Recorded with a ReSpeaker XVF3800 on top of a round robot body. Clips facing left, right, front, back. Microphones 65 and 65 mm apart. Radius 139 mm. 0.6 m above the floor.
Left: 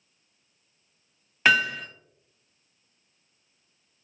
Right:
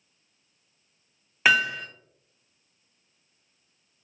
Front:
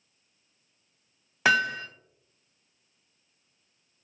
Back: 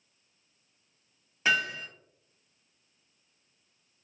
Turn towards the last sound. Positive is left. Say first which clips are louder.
# even, front 5 dB
turn(degrees=-5)